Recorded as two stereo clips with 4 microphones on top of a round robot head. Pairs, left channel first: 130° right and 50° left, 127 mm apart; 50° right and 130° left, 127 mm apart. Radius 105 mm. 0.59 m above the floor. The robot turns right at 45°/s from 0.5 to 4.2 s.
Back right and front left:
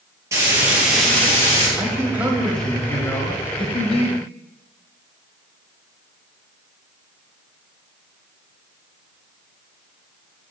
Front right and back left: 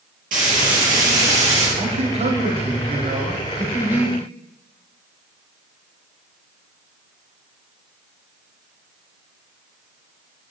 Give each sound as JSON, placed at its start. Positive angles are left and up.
{"t": 0.3, "sound": "frying", "azimuth_deg": 120, "distance_m": 4.5}
{"t": 1.8, "sound": "a man speaking", "azimuth_deg": 105, "distance_m": 1.8}